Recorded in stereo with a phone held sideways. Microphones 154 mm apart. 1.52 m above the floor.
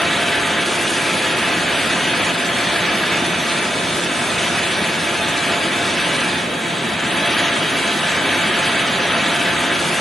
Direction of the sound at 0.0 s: Centre (ahead or behind).